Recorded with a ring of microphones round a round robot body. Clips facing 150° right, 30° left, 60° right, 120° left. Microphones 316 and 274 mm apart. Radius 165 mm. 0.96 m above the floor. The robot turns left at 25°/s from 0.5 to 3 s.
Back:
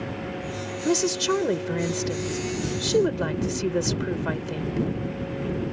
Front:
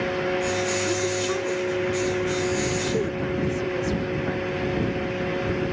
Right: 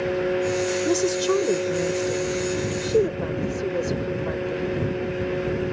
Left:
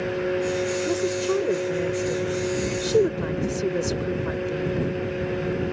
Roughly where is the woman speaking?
Behind right.